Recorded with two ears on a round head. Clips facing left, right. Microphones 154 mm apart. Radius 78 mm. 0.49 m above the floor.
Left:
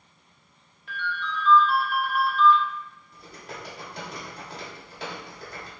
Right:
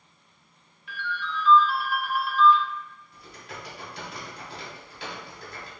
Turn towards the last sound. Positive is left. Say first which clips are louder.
# left 2 dB
turn(degrees=40)  # may be behind; listen again after turning